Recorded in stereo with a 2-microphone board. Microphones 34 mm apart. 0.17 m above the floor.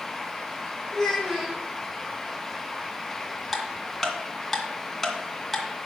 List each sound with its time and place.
0.9 s a child speaking: centre (ahead or behind), 5 m
3.5 s ticking: 5° left (ahead or behind), 2.0 m